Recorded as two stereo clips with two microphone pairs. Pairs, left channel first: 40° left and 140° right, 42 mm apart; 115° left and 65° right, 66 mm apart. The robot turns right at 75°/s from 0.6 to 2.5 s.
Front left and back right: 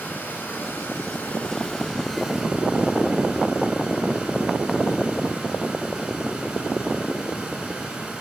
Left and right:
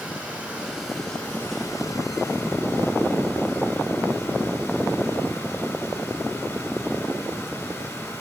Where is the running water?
5° left, 2 m; by 8.2 s 150° left, 2 m.